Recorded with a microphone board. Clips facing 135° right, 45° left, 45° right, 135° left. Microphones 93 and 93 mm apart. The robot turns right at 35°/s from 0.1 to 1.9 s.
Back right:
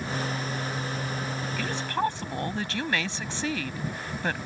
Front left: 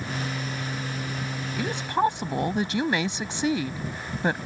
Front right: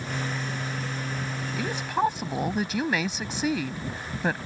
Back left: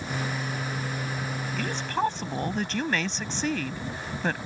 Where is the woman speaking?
5° left; by 4.4 s 20° left.